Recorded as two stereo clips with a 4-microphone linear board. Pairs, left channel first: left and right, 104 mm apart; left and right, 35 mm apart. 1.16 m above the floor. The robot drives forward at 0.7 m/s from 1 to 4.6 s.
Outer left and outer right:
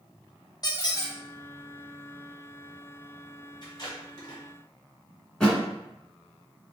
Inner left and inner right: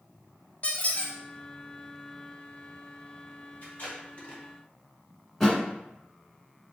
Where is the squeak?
40° left (ahead or behind), 0.8 m; by 1.1 s 35° left (ahead or behind), 0.8 m.